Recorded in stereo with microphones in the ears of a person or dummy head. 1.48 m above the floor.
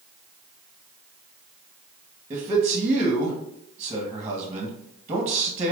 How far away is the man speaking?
About 1.1 m.